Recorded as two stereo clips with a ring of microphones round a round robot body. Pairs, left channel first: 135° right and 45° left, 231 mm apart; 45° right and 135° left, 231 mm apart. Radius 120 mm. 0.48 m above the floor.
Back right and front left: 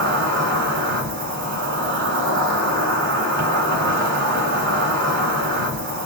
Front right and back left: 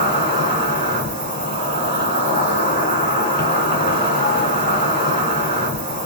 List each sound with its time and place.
0.0 s an insect: 75° left, 3 m